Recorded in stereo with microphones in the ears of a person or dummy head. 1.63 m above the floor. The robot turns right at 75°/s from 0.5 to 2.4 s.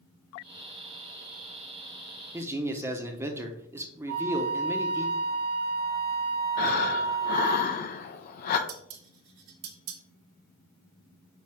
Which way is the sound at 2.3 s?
15° right (ahead or behind).